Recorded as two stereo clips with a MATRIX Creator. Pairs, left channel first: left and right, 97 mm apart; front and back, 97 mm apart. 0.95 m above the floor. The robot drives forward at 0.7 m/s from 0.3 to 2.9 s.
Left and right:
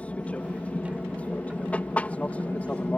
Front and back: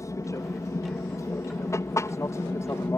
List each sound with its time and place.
0.0 s an aircraft: 25° left